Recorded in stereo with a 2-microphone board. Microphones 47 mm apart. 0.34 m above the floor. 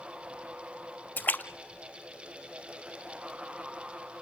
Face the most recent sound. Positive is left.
turn(degrees=40)  # may be behind; listen again after turning